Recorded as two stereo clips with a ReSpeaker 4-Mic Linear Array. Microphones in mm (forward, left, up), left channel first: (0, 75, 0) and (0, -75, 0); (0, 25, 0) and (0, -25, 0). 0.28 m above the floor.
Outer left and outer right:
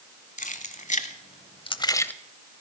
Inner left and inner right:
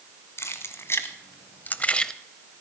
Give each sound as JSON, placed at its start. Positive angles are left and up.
{"t": 0.4, "sound": "keys jangling", "side_deg": 65, "distance_m": 1.6}